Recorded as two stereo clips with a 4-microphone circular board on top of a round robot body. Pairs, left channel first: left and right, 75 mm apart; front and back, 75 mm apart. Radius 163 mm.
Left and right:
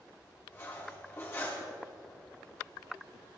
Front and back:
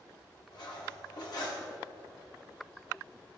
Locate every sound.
0.5 s cutlery clinking: 30° left, 1.4 m